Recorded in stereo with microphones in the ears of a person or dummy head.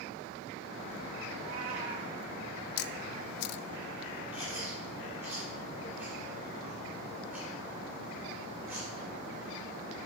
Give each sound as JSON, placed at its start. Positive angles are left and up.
{"t": 1.4, "sound": "a cat meowing", "side_deg": -45, "distance_m": 3.5}
{"t": 2.8, "sound": "a camera shutter", "side_deg": 55, "distance_m": 0.6}
{"t": 4.3, "sound": "chewing", "side_deg": -10, "distance_m": 4.5}